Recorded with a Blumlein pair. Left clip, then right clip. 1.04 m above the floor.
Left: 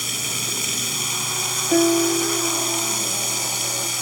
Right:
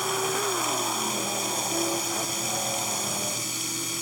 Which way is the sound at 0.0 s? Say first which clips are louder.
Left 1 dB; 70° left.